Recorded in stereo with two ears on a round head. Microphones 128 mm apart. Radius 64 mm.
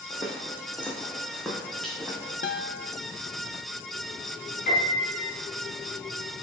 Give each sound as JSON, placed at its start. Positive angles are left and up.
{"t": 0.1, "sound": "footsteps", "side_deg": 20, "distance_m": 2.5}
{"t": 2.4, "sound": "a guitar", "side_deg": 60, "distance_m": 0.7}
{"t": 4.7, "sound": "a piano", "side_deg": 65, "distance_m": 5.0}